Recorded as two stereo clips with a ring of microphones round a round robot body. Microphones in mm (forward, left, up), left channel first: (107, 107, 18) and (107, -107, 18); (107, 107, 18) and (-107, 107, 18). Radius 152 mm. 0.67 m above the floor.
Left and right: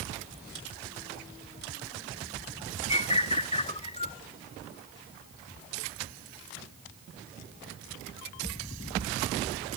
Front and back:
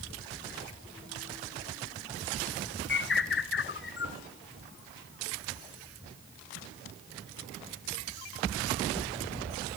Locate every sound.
2.9 s a bird: 30° left, 0.9 m